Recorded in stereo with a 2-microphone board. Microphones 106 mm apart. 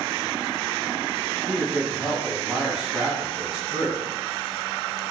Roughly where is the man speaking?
Centre.